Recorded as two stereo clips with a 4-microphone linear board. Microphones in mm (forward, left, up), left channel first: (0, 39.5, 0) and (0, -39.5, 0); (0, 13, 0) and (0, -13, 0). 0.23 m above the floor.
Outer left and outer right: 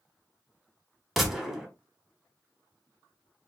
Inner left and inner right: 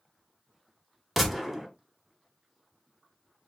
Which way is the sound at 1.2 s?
Centre (ahead or behind).